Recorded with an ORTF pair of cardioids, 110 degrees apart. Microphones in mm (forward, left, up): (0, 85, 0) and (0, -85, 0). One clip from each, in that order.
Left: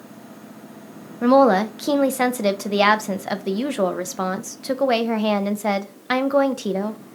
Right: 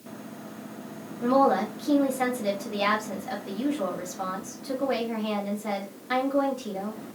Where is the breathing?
I don't hear breathing.